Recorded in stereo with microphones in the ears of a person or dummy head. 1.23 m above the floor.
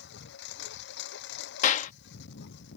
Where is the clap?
35° left (ahead or behind).